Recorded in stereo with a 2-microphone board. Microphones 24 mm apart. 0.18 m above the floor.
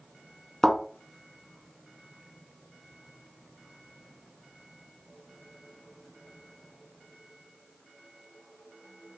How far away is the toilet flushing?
I don't hear a toilet flushing.